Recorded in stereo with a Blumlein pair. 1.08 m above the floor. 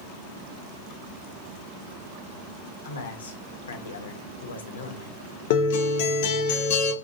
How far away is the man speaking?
About 1.0 m.